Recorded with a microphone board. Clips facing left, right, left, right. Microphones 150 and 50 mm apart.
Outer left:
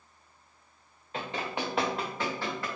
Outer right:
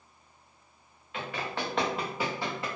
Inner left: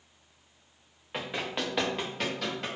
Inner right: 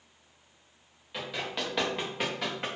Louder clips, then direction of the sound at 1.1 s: Outer left 1 dB, inner left 1 dB; 35° left (ahead or behind).